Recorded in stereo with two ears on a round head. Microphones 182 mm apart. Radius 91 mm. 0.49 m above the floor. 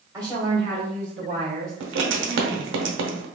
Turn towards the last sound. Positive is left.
turn(degrees=-65)  # may be behind; listen again after turning